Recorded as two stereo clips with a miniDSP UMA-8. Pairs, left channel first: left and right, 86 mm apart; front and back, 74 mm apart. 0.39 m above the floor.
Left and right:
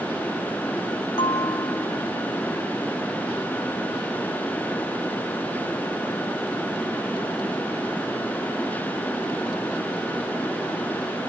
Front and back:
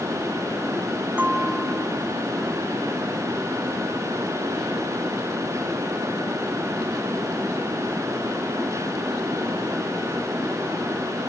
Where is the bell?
110° left, 4 m.